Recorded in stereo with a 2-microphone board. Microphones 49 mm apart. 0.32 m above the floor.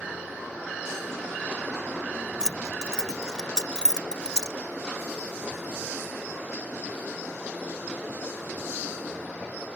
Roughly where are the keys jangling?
Centre.